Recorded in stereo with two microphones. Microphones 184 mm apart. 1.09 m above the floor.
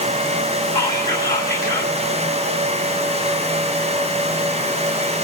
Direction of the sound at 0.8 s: 20° left (ahead or behind).